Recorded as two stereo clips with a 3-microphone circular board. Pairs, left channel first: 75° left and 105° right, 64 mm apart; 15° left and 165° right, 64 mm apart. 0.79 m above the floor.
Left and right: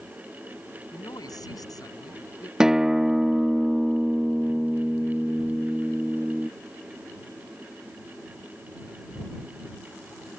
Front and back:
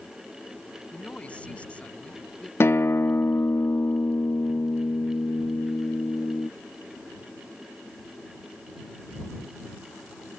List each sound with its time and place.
0.9 s a man speaking: 85° left
2.6 s a guitar: 25° right